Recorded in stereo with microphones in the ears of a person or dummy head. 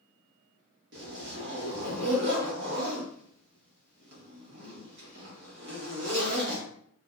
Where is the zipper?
60° right (ahead or behind), 1.0 m.